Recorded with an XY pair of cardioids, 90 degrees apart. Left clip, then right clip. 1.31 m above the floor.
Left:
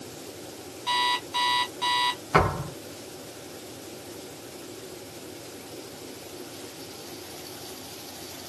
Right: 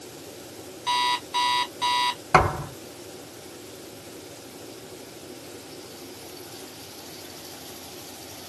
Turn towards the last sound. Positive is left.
turn(degrees=-65)